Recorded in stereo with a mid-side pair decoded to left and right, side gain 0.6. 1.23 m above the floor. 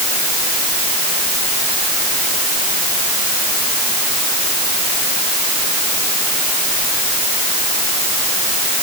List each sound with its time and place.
Only background noise.